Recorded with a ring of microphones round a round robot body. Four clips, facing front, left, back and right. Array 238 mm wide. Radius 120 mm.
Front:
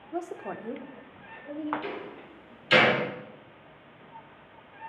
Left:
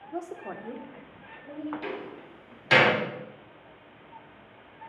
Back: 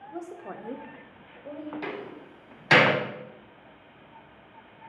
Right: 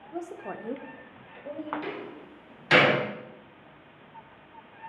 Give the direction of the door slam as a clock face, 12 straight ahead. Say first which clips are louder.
Left 1 dB, back 1 dB; 6 o'clock.